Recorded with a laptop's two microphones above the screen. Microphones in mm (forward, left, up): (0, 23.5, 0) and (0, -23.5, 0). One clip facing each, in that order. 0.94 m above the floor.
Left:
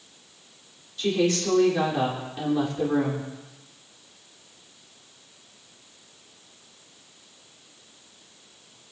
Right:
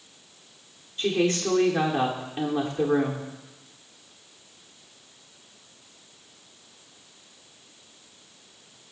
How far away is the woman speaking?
About 2.5 m.